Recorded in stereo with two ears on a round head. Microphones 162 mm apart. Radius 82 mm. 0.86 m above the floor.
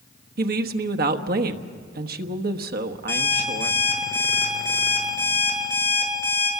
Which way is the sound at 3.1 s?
10° left (ahead or behind).